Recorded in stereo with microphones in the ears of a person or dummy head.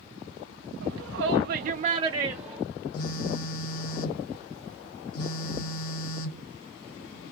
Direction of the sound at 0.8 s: 75° right (ahead or behind).